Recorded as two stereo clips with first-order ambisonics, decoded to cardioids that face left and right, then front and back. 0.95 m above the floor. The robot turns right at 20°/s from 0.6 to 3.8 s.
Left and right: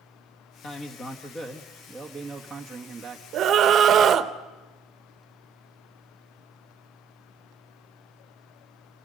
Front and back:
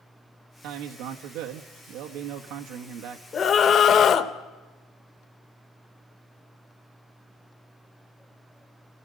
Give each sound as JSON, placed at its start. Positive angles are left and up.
{"t": 0.6, "sound": "a man speaking", "azimuth_deg": 150, "distance_m": 1.4}
{"t": 3.3, "sound": "a scream", "azimuth_deg": -55, "distance_m": 1.1}